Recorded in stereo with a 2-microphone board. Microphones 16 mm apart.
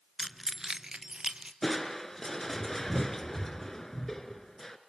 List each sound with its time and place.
0.2 s keys jangling: centre (ahead or behind), 0.8 m; by 1.5 s 65° right (ahead or behind), 1.7 m
1.6 s crushing: 25° left (ahead or behind), 1.6 m